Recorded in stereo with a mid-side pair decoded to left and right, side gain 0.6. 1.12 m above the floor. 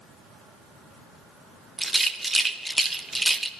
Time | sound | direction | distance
1.8 | a rattle | 10° right | 0.8 m